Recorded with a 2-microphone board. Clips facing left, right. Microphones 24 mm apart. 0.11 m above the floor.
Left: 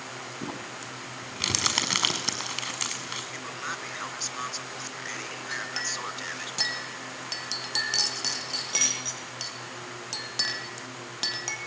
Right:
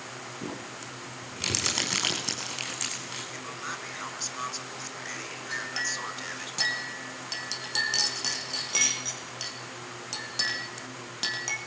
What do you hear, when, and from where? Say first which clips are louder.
0.4 s crumpling: left 1 dB; 30° left (ahead or behind), 6 m
3.3 s a man speaking: left 2 dB; 10° left (ahead or behind), 1.6 m
5.5 s a clink: right 1 dB; 10° left (ahead or behind), 4 m